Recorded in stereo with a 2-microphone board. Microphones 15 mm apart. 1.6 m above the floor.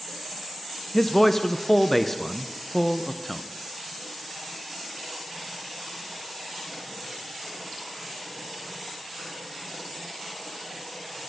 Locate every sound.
0.9 s a man speaking: 10° left (ahead or behind), 0.5 m